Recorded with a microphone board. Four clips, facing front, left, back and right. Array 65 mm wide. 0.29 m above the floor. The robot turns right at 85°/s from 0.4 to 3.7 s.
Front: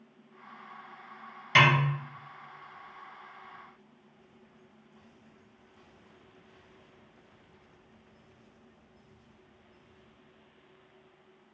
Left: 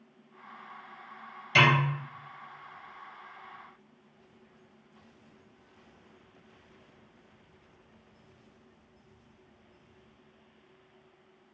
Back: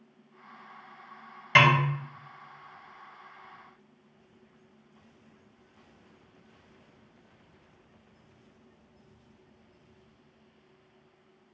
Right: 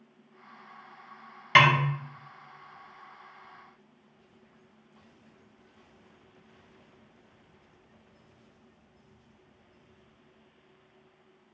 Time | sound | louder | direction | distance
1.6 | a snare drum | right 3 dB, back 2 dB | 110° right | 1.0 m